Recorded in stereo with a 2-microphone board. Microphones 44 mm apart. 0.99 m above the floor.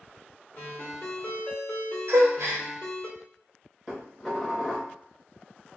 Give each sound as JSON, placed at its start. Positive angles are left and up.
{"t": 0.6, "sound": "a ringtone", "side_deg": 80, "distance_m": 1.5}
{"t": 2.1, "sound": "a gasp", "side_deg": -70, "distance_m": 0.7}
{"t": 3.9, "sound": "dishes clattering", "side_deg": 15, "distance_m": 1.0}